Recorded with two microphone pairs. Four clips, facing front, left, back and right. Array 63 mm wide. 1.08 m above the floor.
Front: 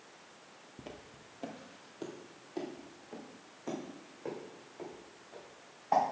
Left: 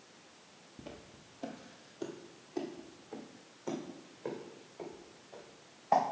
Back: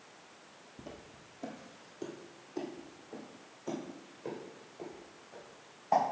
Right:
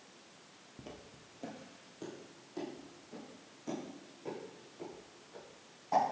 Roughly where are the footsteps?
Ahead.